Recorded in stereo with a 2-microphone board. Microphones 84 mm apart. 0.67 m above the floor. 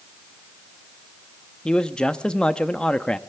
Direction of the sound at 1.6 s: 10° left (ahead or behind).